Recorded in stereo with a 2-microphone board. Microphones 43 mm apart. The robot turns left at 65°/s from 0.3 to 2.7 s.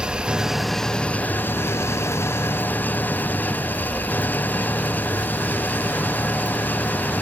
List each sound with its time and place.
0.0 s an engine running: 160° right; by 7.2 s 45° left